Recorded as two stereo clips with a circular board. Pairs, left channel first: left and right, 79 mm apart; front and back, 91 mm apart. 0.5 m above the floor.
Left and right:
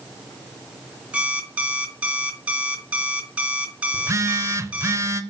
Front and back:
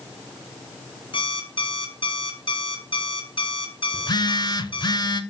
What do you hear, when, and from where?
1.1 s an alarm clock: 15° right, 1.1 m
3.9 s a phone buzzing: 35° right, 0.6 m